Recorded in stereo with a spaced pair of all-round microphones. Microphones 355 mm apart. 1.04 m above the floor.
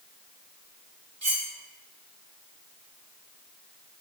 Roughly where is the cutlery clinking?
Right.